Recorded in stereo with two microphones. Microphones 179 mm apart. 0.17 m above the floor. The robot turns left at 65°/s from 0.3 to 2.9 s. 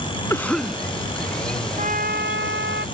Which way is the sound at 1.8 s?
40° right.